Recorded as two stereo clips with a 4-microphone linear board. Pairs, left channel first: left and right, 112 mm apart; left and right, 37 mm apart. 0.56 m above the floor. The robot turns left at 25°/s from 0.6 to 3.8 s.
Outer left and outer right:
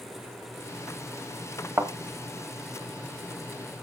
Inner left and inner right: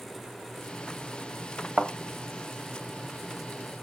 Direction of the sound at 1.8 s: 25° right (ahead or behind).